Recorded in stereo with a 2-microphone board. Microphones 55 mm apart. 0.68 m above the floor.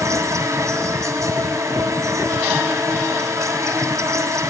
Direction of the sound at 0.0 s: 80° right.